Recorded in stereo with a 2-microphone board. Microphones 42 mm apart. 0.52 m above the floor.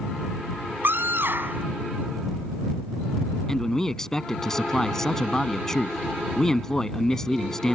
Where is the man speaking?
15° left (ahead or behind).